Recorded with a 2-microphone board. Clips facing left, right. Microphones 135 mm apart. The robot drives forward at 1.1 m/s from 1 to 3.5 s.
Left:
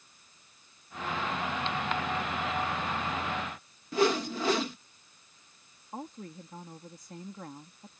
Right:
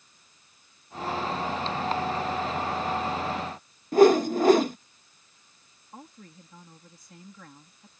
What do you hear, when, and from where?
3.9 s a whoosh: 45° right (ahead or behind)
5.9 s a woman speaking: 40° left (ahead or behind)